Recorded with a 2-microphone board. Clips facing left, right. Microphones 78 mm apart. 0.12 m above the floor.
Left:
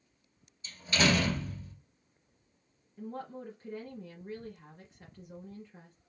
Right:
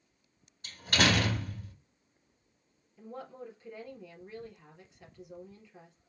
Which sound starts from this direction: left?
A woman speaking, at 3.0 s.